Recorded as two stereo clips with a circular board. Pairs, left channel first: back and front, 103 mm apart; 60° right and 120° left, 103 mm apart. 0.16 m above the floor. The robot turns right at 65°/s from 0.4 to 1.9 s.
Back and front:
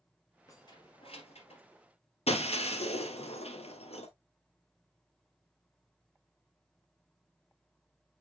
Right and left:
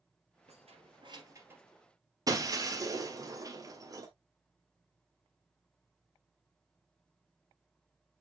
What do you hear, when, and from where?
0.5 s keys jangling: 120° left, 2.5 m; by 1.6 s 165° right, 2.5 m
2.3 s breaking glass: 175° left, 1.7 m